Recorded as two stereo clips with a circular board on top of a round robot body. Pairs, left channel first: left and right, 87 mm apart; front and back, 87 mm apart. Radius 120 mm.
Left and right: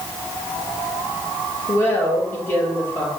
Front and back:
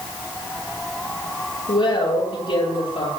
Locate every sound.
1.7 s a woman speaking: 25° left, 9.5 m